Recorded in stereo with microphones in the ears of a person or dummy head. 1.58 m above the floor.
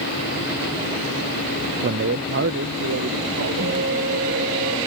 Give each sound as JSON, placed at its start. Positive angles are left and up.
{"t": 1.8, "sound": "a man speaking", "side_deg": -50}
{"t": 3.6, "sound": "a guitar", "side_deg": -60}